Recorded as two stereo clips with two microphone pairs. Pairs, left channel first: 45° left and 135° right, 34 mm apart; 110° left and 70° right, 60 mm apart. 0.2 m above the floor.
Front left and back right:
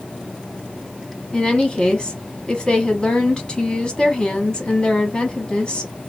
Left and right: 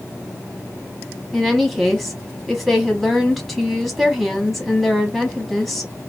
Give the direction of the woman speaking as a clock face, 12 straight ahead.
11 o'clock.